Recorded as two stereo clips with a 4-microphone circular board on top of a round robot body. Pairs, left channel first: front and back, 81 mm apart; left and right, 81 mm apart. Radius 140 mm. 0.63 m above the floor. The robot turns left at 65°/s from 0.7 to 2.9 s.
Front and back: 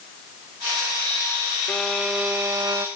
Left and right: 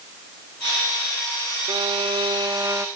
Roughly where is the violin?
Right.